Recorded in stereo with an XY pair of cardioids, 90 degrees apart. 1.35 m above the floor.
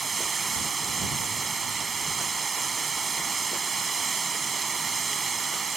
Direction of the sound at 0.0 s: 40° right.